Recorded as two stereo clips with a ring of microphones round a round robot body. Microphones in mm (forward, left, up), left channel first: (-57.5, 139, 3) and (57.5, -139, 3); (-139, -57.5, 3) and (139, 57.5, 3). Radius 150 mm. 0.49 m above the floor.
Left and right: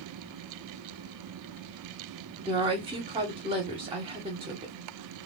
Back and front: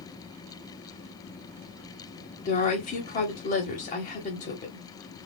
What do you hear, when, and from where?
2.5 s a woman speaking: 125° right, 0.9 m